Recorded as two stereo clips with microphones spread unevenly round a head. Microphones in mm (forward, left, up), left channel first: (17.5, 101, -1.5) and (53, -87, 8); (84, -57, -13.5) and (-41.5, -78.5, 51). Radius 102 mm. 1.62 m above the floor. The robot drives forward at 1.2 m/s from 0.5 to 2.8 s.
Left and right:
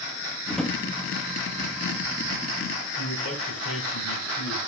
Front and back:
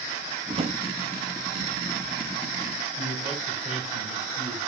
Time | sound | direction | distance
0.5 | a drawer | 170° right | 1.5 m
3.0 | a man speaking | 130° left | 6.5 m